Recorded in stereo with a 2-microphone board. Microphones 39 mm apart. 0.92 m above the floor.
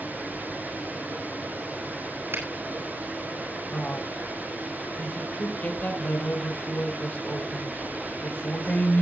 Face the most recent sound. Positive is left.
turn(degrees=50)  # may be behind; listen again after turning